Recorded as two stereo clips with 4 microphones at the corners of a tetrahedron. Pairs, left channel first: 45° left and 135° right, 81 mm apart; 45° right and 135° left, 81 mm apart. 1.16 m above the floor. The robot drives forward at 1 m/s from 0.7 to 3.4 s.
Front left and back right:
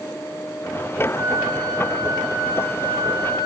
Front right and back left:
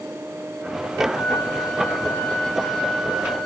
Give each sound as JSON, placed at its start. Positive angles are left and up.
{"t": 1.1, "sound": "a flute", "azimuth_deg": -90, "distance_m": 2.5}